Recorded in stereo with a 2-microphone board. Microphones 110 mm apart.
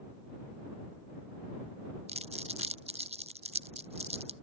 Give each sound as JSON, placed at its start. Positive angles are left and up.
{"t": 2.1, "sound": "crumpling", "side_deg": -75}